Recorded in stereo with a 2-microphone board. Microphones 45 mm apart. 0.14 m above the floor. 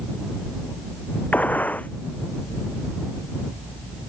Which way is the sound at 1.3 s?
35° left (ahead or behind).